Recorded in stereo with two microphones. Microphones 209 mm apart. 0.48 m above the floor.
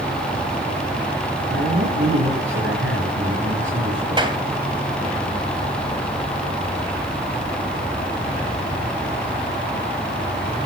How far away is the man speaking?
About 6 m.